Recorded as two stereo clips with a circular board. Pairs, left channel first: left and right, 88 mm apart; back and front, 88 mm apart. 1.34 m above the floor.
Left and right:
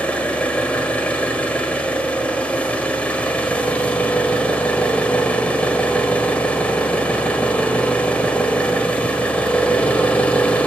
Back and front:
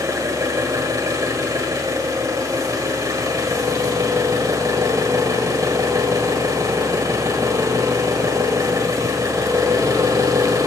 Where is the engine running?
25° left, 1.4 m.